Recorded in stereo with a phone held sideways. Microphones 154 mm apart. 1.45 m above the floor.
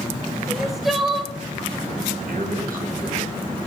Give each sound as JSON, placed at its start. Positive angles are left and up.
{"t": 0.5, "sound": "crying", "side_deg": 0, "distance_m": 0.7}
{"t": 2.3, "sound": "a man speaking", "side_deg": -75, "distance_m": 1.8}